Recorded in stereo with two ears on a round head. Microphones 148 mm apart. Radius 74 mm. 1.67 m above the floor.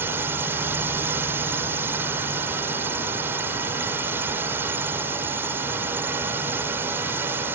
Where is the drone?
15° right (ahead or behind).